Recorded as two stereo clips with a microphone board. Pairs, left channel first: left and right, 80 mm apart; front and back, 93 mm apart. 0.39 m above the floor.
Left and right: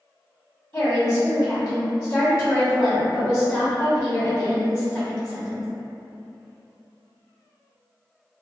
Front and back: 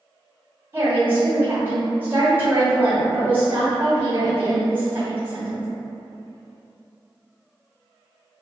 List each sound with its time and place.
0.7 s a woman speaking: 125° left, 1.1 m